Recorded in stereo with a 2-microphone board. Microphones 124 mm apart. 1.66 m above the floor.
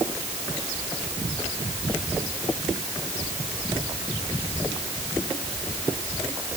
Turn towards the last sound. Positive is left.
No sound to turn to.